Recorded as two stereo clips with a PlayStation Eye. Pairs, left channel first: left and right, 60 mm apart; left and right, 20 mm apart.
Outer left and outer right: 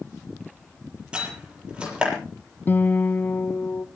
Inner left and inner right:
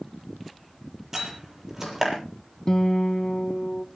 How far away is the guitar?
About 1.0 m.